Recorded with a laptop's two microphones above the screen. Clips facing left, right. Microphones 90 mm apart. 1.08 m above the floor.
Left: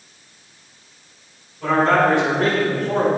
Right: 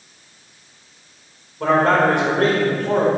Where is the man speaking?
70° right (ahead or behind), 4.5 m.